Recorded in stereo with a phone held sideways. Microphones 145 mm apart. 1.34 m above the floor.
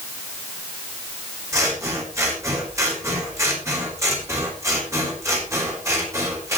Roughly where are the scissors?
Centre.